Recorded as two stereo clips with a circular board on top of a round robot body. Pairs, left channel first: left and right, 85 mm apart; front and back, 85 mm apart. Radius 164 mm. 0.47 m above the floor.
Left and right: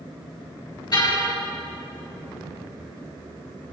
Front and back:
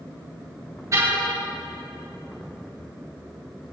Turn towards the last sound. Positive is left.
turn(degrees=125)